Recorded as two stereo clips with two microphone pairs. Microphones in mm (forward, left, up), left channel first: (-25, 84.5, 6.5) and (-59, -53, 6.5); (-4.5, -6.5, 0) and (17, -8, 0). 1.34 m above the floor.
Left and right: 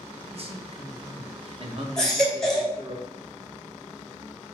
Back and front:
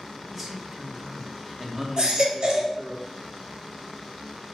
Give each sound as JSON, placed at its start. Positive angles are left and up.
{"t": 0.3, "sound": "a man speaking", "azimuth_deg": -85, "distance_m": 0.6}
{"t": 2.0, "sound": "a baby crying", "azimuth_deg": -10, "distance_m": 0.7}